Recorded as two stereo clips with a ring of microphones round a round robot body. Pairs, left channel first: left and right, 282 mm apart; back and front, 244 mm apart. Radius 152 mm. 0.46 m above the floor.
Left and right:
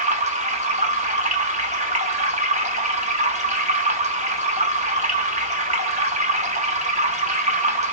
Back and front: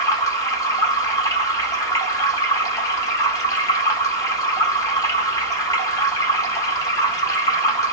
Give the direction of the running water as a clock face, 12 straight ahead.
4 o'clock.